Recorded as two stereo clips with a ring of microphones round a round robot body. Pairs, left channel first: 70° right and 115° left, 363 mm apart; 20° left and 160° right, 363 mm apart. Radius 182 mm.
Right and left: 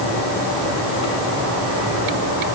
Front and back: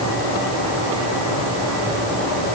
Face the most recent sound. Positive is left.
No sound to turn to.